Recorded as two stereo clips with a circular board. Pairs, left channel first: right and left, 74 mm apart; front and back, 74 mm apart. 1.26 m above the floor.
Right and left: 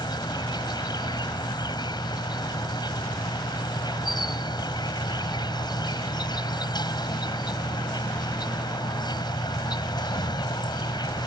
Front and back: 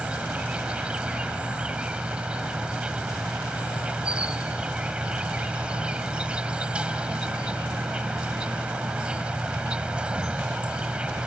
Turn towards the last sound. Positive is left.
turn(degrees=-105)